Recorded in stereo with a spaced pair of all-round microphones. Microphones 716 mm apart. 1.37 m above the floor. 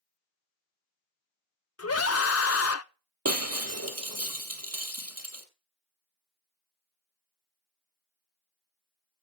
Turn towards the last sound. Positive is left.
turn(degrees=-20)  # may be behind; listen again after turning